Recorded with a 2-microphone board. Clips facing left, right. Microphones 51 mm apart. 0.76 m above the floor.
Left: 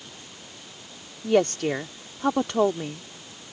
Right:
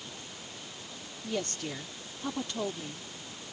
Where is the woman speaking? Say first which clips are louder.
Left 14 dB; 70° left (ahead or behind).